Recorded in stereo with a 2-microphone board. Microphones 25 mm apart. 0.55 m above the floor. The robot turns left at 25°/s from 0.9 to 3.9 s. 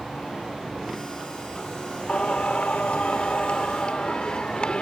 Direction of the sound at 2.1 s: 100° left.